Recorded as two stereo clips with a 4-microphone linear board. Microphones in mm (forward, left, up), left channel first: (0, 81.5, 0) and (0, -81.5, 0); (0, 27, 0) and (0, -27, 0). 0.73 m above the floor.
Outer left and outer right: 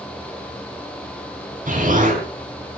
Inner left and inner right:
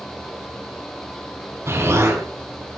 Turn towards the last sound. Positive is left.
turn(degrees=-55)  # may be behind; listen again after turning